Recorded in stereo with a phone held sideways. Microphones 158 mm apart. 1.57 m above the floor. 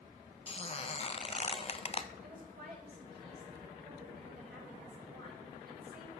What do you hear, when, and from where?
0.5 s a squeak: 40° left (ahead or behind), 0.6 m
2.2 s a woman speaking: 85° right, 6.5 m